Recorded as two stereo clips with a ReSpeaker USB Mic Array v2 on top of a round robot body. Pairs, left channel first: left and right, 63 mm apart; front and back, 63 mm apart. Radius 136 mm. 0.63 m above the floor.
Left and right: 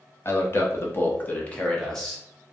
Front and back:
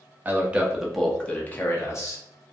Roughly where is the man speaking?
Behind left.